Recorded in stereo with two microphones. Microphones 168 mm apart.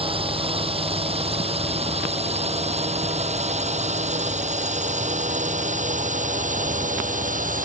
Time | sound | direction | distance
0.0 | a drone | 35° right (ahead or behind) | ?